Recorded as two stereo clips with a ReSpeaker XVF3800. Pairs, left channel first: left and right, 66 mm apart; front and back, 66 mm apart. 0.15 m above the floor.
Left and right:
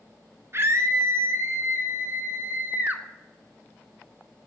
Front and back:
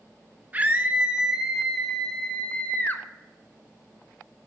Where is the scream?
120° right, 1.5 m; by 3.0 s 40° right, 1.4 m.